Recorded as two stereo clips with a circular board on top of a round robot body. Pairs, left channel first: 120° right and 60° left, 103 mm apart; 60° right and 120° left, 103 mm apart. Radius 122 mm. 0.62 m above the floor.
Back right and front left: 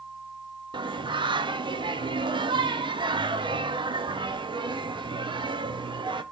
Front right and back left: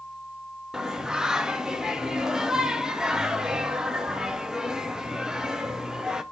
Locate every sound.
0.7 s singing: 35° left, 0.6 m